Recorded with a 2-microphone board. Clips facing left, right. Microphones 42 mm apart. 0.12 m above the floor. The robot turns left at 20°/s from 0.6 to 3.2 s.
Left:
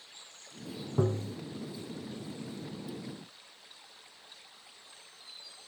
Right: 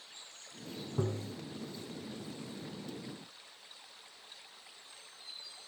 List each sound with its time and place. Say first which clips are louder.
1.0 s tapping: left 6 dB; 20° left (ahead or behind), 0.5 m